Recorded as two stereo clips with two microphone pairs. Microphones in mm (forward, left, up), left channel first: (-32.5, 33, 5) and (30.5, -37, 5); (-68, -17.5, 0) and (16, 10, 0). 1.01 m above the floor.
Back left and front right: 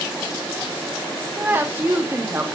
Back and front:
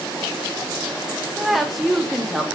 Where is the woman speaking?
80° right, 0.5 m.